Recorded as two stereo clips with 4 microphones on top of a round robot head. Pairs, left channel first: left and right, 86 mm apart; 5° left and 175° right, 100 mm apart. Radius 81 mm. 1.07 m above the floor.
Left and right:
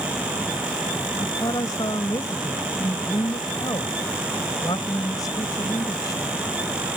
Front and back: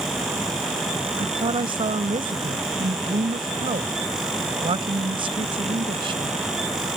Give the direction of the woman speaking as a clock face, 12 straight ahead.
7 o'clock.